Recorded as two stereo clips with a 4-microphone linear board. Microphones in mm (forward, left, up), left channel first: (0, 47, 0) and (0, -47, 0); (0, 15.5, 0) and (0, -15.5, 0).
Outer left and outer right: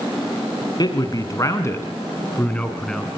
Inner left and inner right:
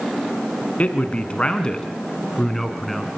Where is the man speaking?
45° left (ahead or behind), 3 m; by 3.1 s 5° left (ahead or behind), 3 m.